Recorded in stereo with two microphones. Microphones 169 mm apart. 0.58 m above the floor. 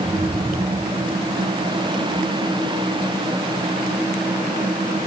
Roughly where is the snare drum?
No snare drum in this recording.